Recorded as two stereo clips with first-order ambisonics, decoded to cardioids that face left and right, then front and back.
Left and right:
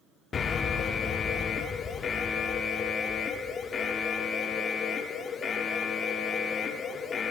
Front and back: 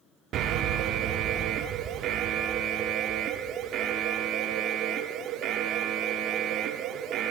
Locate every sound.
0.3 s an alarm: 150° left, 0.6 m